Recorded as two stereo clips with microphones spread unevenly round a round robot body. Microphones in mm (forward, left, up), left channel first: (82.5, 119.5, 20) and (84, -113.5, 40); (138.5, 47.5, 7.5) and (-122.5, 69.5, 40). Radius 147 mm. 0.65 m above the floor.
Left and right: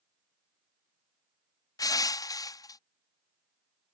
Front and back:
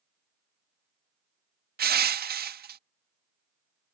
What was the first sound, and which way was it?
Crushing, 145° left.